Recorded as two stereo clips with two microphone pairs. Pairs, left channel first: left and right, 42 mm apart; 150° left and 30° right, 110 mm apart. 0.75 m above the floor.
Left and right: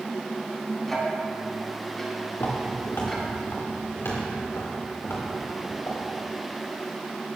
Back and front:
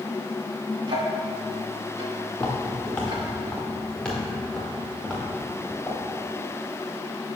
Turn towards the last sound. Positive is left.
turn(degrees=65)